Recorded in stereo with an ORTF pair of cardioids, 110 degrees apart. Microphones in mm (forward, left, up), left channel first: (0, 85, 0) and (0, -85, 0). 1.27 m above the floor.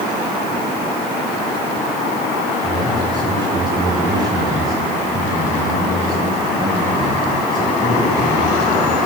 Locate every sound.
2.6 s a man speaking: 25° right, 6.5 m; by 9.0 s 20° right, 12 m